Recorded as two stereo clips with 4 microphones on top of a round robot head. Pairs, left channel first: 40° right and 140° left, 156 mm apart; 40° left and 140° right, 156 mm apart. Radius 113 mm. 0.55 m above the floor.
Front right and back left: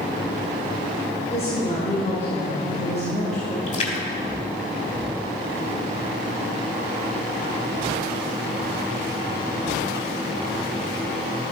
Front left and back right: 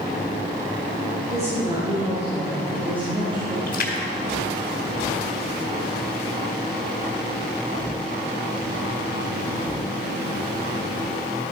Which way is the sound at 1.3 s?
90° right.